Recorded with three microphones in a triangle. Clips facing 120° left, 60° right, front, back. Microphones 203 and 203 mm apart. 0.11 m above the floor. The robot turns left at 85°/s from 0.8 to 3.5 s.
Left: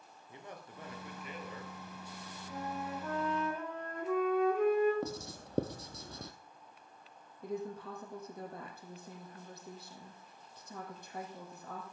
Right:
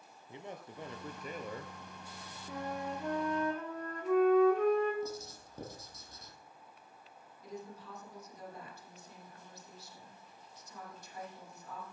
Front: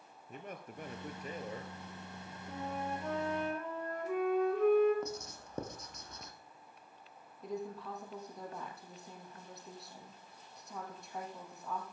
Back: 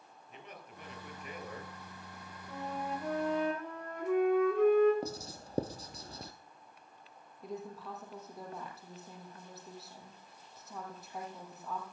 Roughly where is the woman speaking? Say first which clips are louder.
Left 7 dB, front 2 dB; left.